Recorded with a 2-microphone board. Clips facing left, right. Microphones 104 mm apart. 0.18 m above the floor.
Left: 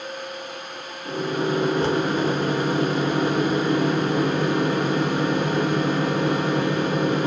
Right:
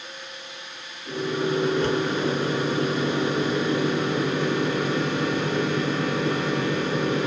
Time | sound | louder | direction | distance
1.1 | a microwave | left 1 dB | 35° left (ahead or behind) | 1.1 m